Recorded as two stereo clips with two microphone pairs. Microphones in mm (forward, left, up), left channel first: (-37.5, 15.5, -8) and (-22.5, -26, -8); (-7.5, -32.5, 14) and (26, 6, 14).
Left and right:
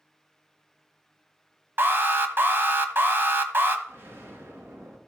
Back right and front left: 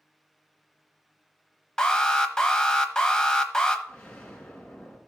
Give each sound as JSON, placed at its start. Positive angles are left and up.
{"t": 1.8, "sound": "an alarm", "azimuth_deg": -60, "distance_m": 1.1}
{"t": 3.9, "sound": "an explosion", "azimuth_deg": -65, "distance_m": 3.0}